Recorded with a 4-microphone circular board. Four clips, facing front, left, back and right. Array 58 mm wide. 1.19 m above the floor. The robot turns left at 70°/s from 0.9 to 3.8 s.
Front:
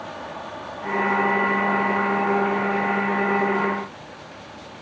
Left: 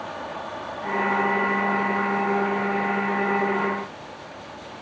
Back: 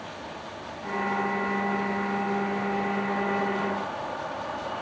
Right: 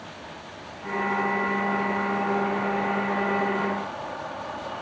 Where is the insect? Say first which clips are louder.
Left 8 dB, front 5 dB; 60° left; by 4.8 s 140° right.